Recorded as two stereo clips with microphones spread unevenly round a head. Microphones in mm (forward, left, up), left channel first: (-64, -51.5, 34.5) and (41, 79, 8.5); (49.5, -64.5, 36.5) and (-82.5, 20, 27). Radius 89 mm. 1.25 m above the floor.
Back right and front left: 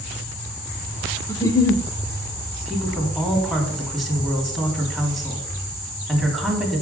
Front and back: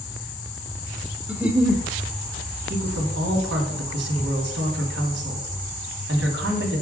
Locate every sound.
1.3 s a giggle: 130° right, 0.9 m
2.6 s a woman speaking: 145° left, 3 m